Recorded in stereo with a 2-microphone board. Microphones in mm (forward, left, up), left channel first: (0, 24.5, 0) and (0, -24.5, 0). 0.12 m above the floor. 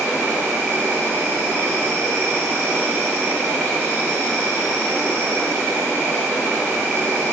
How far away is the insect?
About 7 m.